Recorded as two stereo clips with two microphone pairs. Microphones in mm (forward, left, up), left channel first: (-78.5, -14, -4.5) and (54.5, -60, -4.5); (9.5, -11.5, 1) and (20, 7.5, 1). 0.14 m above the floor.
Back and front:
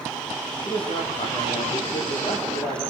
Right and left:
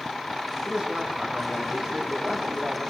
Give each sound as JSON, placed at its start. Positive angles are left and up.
{"t": 0.6, "sound": "a man speaking", "azimuth_deg": 110, "distance_m": 7.0}